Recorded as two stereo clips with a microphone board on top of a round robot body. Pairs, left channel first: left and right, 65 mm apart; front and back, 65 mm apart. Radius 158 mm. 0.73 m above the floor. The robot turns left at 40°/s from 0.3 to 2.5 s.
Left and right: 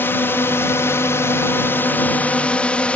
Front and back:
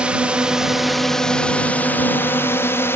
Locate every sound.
0.0 s a drone: 115° left; by 3.0 s 30° left